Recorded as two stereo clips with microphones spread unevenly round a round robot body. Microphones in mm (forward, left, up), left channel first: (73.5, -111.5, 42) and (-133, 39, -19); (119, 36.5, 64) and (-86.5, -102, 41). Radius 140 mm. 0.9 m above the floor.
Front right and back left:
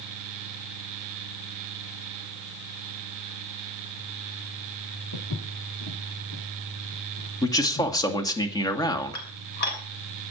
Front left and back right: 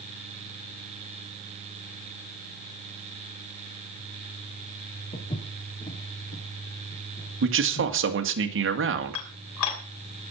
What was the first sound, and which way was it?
Footsteps, 30° right.